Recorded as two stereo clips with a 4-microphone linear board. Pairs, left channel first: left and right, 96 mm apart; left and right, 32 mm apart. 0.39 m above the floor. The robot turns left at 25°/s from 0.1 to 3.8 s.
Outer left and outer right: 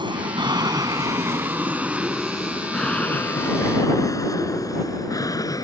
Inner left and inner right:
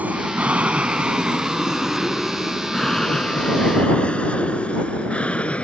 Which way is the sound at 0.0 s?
55° right (ahead or behind).